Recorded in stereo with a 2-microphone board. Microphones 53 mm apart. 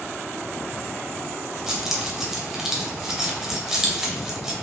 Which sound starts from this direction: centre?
Keys jangling, at 1.7 s.